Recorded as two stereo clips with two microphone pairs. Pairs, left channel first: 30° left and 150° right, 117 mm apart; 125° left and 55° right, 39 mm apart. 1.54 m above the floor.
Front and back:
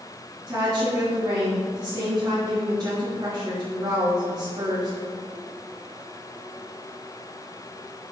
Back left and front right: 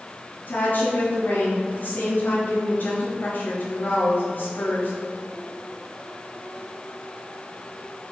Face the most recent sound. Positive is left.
turn(degrees=150)